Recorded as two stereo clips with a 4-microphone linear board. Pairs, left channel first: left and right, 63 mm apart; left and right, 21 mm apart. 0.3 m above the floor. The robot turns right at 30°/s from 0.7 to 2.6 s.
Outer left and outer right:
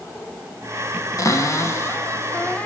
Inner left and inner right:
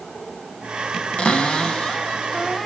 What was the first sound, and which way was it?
A cupboard door, 110° left.